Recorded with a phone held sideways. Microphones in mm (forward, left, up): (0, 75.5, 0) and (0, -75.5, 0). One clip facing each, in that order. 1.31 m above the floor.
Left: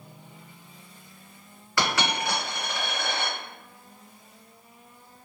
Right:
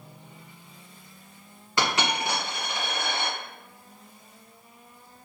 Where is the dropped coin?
20° right (ahead or behind), 1.7 m.